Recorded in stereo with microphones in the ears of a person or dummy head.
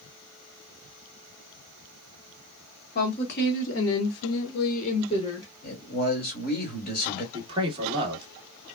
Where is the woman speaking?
50° left (ahead or behind), 1.7 m; by 5.5 s 20° left (ahead or behind), 1.3 m.